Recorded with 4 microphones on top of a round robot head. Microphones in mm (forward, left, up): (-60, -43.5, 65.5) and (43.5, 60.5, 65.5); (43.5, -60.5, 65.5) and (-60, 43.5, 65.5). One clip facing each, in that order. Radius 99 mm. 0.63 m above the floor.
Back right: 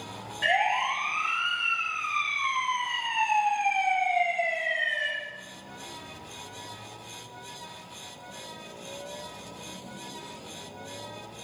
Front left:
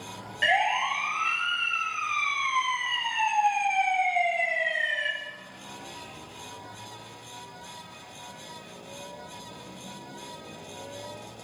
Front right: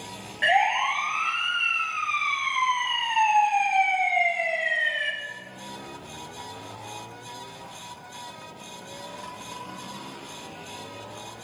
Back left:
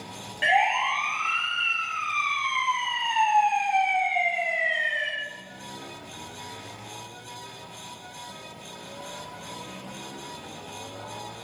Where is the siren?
60° left, 6.5 m; by 5.1 s 20° left, 8 m.